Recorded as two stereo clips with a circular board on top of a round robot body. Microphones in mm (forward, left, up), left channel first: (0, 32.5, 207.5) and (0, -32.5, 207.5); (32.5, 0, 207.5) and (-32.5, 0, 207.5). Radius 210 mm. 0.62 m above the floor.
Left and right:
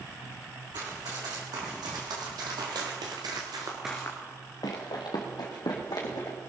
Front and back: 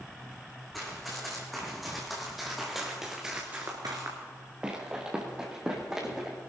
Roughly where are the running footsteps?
Right.